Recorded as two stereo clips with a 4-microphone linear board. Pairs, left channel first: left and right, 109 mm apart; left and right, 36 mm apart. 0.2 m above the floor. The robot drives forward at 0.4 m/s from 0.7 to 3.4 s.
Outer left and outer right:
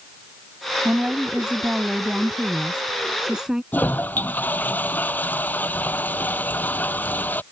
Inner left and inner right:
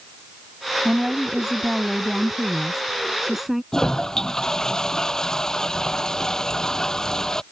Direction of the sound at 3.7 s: 15° left (ahead or behind).